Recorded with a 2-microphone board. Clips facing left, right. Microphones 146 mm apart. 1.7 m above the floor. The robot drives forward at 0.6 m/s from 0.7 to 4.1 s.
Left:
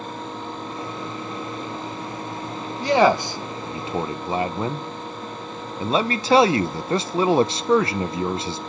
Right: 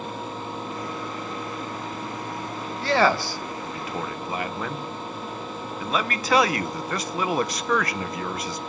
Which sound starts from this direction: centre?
A man speaking, at 2.8 s.